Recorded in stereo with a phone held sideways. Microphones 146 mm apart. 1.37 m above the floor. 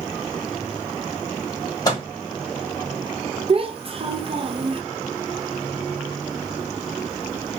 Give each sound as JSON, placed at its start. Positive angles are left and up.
{"t": 1.9, "sound": "a microwave", "side_deg": 25, "distance_m": 1.7}
{"t": 3.5, "sound": "a child speaking", "side_deg": -40, "distance_m": 0.6}